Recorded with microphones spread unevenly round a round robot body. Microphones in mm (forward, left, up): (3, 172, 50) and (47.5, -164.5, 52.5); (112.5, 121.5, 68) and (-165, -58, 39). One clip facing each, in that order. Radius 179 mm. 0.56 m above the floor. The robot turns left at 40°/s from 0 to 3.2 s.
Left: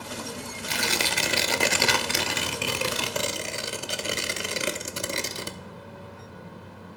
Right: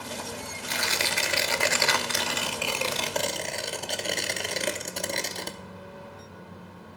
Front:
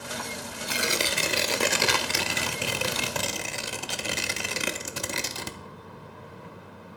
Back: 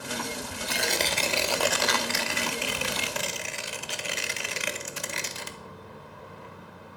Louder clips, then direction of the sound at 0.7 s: Left 3 dB, front 1 dB; 125° left.